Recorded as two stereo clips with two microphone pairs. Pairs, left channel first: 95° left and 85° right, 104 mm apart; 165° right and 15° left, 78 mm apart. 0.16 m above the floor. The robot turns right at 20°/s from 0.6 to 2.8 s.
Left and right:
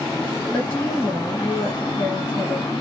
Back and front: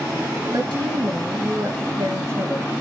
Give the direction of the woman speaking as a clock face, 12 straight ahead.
11 o'clock.